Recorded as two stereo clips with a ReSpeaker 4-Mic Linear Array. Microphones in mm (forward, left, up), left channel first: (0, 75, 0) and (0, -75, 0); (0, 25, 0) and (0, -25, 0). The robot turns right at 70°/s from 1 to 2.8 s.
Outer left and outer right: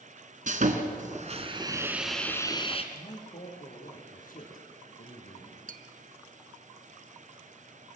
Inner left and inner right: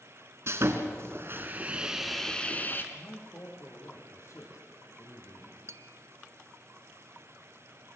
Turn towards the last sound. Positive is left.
turn(degrees=-70)  # may be behind; listen again after turning